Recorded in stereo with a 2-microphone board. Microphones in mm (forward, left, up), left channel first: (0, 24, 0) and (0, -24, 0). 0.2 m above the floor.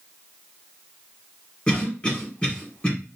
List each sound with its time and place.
1.7 s a cough: 25° left (ahead or behind), 1.4 m